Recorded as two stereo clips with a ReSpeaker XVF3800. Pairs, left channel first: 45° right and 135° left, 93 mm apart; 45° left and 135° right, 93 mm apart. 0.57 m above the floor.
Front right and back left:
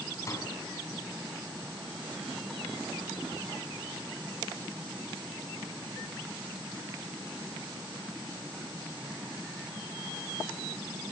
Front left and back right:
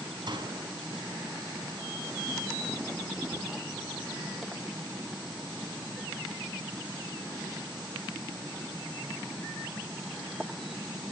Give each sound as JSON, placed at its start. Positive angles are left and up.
{"t": 0.3, "sound": "a door slam", "azimuth_deg": -100, "distance_m": 4.0}